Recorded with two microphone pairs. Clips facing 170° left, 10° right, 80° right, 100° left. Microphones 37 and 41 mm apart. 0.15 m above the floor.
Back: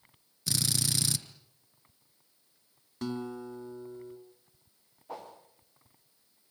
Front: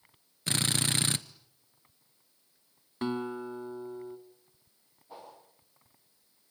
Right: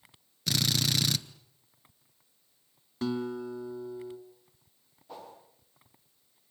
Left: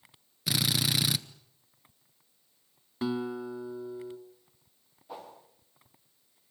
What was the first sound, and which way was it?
A drill, 20° left.